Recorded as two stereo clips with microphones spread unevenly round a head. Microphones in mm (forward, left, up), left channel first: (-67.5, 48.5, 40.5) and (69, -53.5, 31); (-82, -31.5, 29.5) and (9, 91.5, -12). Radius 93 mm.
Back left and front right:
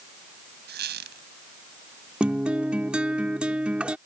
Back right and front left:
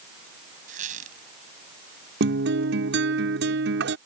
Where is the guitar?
50° left.